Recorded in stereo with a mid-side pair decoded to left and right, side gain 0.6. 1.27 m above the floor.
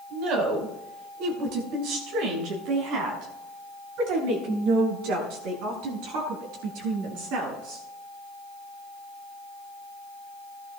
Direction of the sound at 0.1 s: 70° right.